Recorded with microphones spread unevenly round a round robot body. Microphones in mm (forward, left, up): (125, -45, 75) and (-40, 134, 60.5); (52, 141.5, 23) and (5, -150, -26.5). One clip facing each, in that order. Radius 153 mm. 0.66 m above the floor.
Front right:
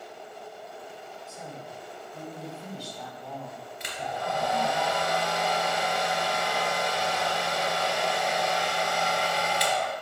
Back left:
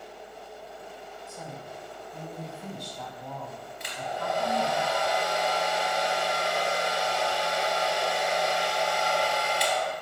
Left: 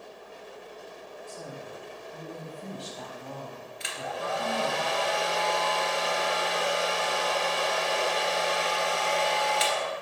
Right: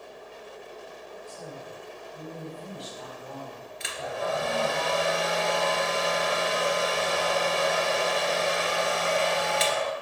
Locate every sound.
1.3 s a woman speaking: 100° left, 4 m
3.8 s a hair dryer: 80° right, 1.9 m